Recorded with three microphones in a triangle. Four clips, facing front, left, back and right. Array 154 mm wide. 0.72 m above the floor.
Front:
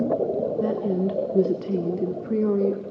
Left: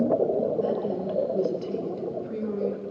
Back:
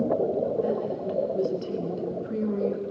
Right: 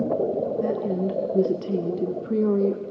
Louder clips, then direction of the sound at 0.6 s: Right 2 dB, front 3 dB; 15° right.